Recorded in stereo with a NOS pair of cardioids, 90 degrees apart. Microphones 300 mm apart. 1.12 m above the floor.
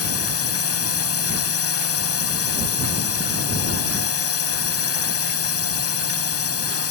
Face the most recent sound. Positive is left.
turn(degrees=50)